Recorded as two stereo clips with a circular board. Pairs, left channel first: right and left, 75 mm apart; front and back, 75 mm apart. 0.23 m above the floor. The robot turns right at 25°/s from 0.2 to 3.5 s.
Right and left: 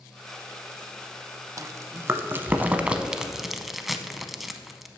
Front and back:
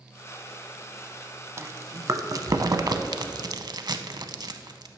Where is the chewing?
130° left, 0.5 m; by 4.9 s straight behind, 0.5 m.